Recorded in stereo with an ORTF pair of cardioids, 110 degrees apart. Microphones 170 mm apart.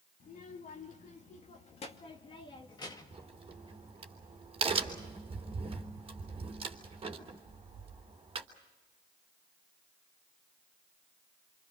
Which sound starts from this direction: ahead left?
A child speaking, at 0.2 s.